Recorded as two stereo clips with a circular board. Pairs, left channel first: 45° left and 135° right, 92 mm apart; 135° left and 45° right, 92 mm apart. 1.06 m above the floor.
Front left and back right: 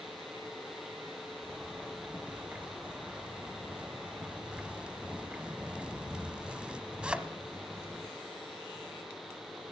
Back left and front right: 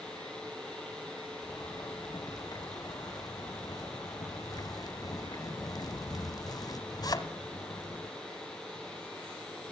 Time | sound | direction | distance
1.4 | a zipper | 150° left | 1.2 m